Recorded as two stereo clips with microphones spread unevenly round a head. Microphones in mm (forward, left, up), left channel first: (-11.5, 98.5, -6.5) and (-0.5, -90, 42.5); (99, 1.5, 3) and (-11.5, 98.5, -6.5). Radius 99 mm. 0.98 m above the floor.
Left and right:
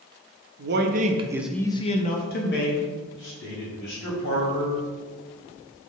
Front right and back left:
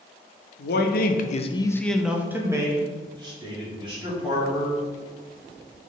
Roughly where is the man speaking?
Ahead right.